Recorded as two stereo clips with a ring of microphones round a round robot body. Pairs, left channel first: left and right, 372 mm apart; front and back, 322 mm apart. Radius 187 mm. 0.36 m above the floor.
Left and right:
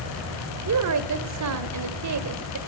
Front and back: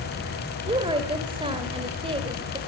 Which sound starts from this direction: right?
A woman speaking, at 0.7 s.